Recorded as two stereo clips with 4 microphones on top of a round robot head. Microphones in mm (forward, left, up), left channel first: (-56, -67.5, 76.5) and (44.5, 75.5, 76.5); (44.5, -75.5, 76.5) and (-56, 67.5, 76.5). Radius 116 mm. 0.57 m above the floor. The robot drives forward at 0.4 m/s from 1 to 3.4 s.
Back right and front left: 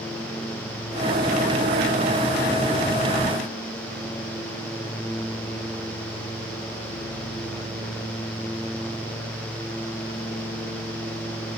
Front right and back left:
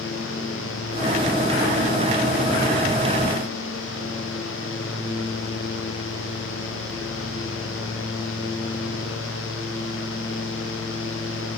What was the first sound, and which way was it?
Only background noise.